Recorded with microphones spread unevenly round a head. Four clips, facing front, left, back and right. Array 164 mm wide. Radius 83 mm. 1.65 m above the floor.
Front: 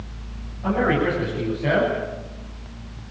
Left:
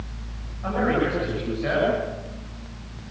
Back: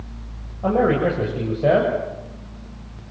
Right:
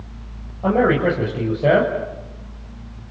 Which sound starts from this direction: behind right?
A man speaking, at 0.6 s.